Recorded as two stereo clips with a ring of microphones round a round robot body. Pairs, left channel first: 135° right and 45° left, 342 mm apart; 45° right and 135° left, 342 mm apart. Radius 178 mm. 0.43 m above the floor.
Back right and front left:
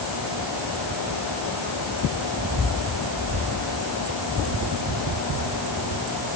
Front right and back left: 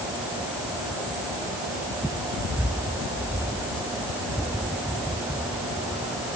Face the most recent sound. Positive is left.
No sound to turn to.